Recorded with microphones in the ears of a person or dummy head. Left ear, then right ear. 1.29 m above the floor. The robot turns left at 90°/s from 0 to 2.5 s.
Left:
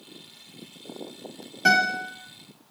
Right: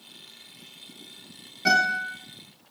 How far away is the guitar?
About 1.5 m.